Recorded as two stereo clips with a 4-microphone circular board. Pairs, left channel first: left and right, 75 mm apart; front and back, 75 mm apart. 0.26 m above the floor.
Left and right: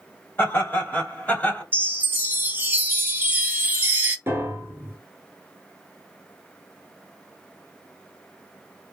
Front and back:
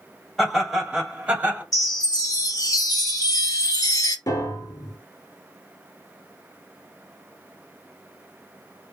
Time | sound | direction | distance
0.4 | laughter | 90° left | 1.7 m
1.7 | a chime | 25° right | 0.5 m
4.3 | a piano | 35° right | 0.6 m